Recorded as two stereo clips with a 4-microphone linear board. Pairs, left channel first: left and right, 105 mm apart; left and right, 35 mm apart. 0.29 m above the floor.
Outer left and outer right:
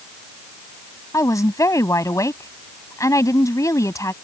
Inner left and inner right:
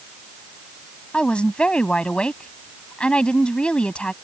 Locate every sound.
1.1 s a woman speaking: 30° left (ahead or behind)